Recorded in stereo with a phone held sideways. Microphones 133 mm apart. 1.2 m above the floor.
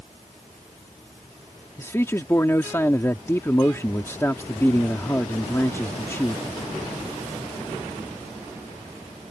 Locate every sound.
1.8 s a man speaking: 20° left (ahead or behind)